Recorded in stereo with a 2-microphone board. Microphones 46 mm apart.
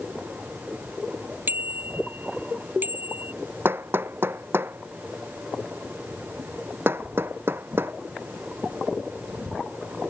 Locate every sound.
1.5 s a bicycle bell: 45° right (ahead or behind)
3.6 s hammering: 55° right (ahead or behind)